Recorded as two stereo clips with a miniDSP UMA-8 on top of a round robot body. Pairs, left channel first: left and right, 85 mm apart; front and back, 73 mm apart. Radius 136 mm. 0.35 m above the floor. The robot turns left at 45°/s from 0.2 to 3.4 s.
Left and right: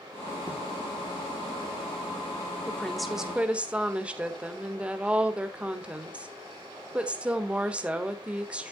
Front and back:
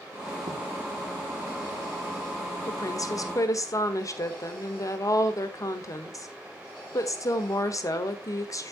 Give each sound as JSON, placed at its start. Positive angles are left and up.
{"t": 0.5, "sound": "writing", "azimuth_deg": -155, "distance_m": 4.5}
{"t": 2.7, "sound": "a woman speaking", "azimuth_deg": 15, "distance_m": 1.7}